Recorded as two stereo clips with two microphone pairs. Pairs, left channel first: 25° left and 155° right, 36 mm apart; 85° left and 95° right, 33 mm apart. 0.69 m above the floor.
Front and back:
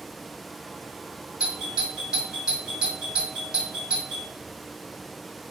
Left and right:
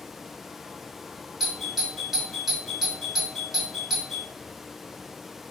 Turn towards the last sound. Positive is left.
turn(degrees=-155)